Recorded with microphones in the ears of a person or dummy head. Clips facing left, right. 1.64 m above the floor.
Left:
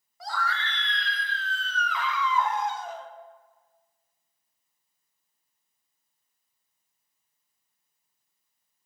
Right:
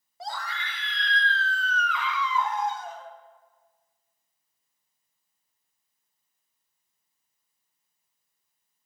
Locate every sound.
0.2 s a scream: 25° right (ahead or behind), 1.1 m; by 3.1 s 65° left (ahead or behind), 1.3 m